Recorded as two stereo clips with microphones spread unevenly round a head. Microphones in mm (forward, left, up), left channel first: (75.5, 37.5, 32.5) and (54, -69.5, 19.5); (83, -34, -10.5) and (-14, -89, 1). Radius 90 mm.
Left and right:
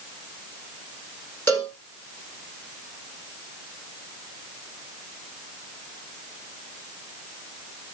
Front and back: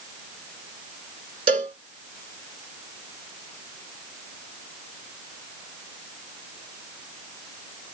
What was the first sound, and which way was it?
A cowbell, 155° left.